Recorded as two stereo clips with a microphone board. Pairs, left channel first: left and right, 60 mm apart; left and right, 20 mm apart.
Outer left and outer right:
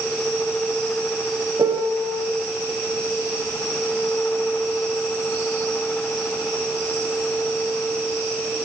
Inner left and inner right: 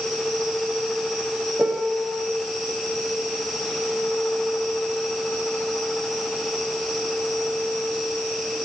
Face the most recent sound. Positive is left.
turn(degrees=-80)